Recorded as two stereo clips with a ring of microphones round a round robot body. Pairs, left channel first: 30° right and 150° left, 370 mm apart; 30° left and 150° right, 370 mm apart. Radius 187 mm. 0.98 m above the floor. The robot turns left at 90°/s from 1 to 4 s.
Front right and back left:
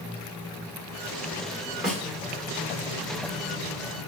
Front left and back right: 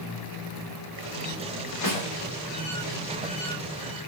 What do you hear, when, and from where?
1.8 s a snare drum: 65° left, 2 m; by 2.1 s 45° left, 2 m